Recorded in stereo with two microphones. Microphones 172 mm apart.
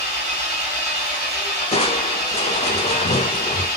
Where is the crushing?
40° left (ahead or behind), 0.5 m.